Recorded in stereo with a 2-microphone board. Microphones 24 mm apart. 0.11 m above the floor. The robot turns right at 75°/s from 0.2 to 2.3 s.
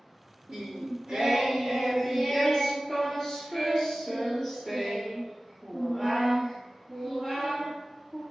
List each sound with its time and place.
0.5 s singing: 115° right, 1.4 m; by 8.2 s 20° left, 1.4 m